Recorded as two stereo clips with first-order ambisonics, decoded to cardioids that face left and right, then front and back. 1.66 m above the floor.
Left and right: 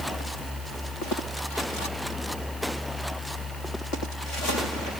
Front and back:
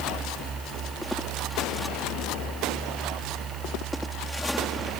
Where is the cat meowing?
No cat meowing in this recording.